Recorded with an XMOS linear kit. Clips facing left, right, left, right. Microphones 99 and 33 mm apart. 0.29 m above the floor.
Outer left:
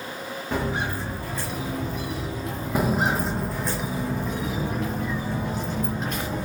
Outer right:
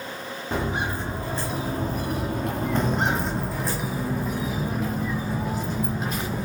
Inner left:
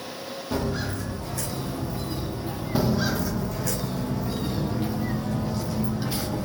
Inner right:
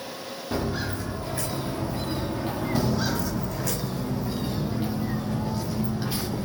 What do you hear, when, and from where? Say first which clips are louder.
0.5 s footsteps: even, even; 15° right (ahead or behind), 2.0 m; by 3.8 s 75° right (ahead or behind), 1.3 m
2.8 s footsteps: outer left 3 dB, inner left 4 dB; 10° left (ahead or behind), 0.5 m; by 6.5 s 5° right (ahead or behind), 3 m